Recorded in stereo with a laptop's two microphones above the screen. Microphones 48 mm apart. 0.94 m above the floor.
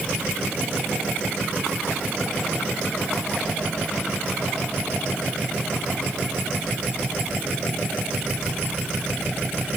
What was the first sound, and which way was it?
Only background noise.